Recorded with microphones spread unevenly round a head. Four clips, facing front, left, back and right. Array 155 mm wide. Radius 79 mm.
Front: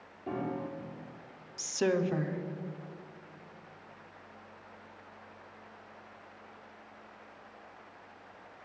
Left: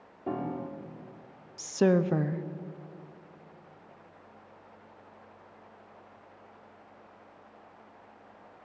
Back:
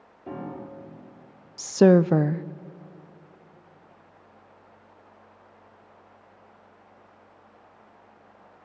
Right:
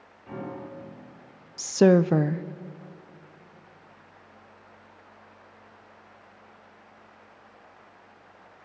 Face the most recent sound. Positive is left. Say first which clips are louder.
# right 6 dB, back 13 dB
turn(degrees=-150)